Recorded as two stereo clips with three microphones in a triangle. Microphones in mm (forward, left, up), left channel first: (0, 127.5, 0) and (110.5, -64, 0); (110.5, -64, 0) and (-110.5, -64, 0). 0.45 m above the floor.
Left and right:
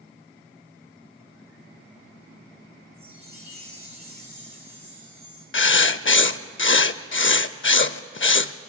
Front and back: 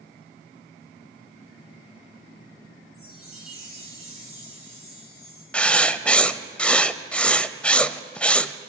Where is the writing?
85° left, 0.5 m.